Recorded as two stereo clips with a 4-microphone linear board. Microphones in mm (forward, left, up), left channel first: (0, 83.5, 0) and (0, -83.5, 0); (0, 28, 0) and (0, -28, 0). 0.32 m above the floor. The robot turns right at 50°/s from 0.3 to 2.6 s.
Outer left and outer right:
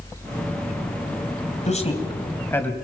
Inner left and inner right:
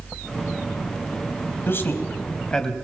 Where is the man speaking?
45° left (ahead or behind), 2.5 m; by 2.8 s 10° left (ahead or behind), 2.5 m.